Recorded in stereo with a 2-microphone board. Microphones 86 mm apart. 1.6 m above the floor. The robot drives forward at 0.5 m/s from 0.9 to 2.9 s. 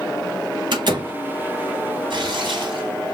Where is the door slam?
60° right (ahead or behind), 1.9 m.